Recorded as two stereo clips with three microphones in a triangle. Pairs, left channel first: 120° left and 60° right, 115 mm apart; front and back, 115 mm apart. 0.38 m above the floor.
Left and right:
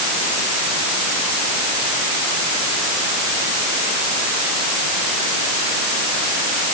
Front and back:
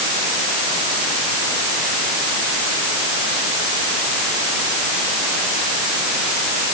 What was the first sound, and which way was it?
Only background noise.